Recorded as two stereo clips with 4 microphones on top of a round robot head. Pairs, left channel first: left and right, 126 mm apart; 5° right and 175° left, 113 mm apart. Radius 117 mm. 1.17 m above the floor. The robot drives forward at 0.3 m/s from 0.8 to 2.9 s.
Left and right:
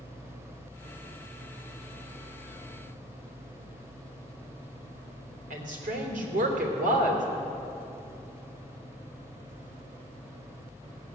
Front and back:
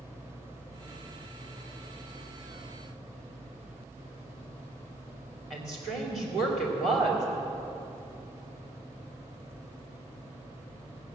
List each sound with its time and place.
5.5 s a woman speaking: 95° right, 3 m